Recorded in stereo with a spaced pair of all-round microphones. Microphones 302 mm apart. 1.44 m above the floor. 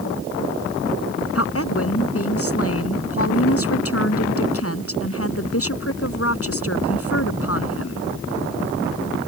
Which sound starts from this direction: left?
A woman speaking, at 1.4 s.